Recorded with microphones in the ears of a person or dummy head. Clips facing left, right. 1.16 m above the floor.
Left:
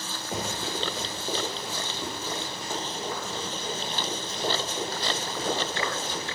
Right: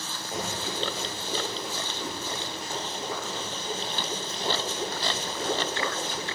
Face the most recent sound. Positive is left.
turn(degrees=75)  # may be behind; listen again after turning